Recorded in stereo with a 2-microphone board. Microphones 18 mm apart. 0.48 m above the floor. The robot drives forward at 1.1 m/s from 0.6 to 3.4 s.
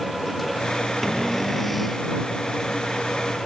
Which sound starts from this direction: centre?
A cupboard door, at 1.0 s.